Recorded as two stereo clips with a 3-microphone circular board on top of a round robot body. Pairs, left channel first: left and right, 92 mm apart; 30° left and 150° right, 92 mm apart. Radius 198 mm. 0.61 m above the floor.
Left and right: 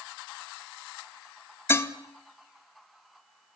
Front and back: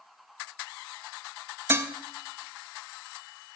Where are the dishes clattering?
150° left, 0.6 m.